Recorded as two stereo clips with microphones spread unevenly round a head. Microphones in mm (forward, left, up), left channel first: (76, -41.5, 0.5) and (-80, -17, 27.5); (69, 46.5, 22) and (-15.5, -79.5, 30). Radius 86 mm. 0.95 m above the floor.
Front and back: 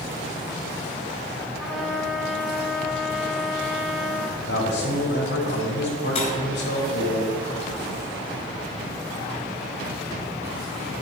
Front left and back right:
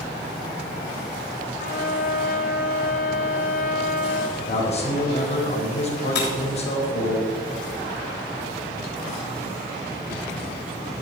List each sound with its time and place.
1.6 s a trumpet: 75° left, 1.3 m
4.4 s a man speaking: 10° left, 4 m
6.2 s breaking glass: 50° left, 3.5 m